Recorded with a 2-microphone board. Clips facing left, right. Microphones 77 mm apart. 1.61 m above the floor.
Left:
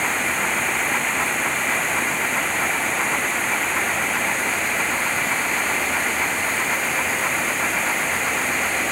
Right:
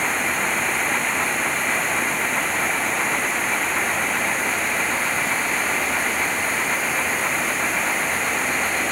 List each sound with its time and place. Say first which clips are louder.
0.0 s running water: even; centre (ahead or behind)